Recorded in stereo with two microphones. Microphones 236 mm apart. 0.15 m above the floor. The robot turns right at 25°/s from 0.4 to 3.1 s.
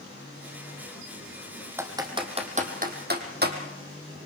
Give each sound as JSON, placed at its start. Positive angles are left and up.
{"t": 1.8, "sound": "typing on a keyboard", "side_deg": -10, "distance_m": 2.5}